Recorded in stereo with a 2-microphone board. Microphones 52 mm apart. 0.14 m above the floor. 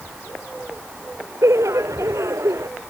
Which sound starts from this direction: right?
Laughter, at 1.4 s.